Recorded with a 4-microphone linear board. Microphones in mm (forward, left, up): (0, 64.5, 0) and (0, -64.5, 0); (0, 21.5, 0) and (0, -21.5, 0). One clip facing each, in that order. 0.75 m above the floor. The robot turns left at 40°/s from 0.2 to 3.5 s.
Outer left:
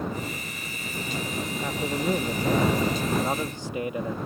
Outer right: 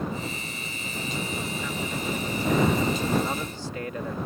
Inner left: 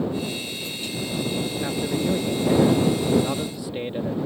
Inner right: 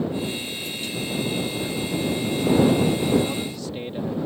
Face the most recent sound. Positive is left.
turn(degrees=25)